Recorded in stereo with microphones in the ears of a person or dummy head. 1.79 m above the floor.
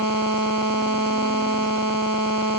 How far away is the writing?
I don't hear writing.